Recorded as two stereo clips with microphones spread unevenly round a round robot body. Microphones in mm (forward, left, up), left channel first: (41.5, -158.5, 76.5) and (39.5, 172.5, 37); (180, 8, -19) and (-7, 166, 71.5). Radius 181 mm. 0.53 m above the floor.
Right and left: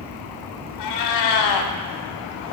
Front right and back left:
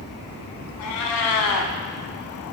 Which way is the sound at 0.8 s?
70° right.